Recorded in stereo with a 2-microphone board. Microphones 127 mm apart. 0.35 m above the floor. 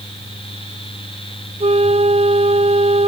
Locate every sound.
1.6 s a flute: 55° right (ahead or behind)